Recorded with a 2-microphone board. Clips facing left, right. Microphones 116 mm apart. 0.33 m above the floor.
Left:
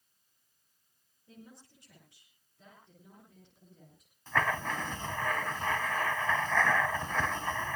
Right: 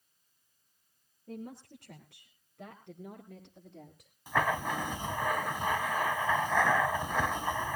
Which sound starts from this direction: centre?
Writing, at 4.3 s.